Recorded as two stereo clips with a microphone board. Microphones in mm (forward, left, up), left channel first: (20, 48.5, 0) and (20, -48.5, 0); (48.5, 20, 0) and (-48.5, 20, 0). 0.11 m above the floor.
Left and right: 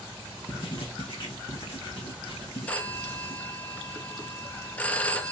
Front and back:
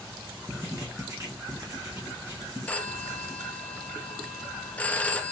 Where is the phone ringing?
40° left, 0.7 m.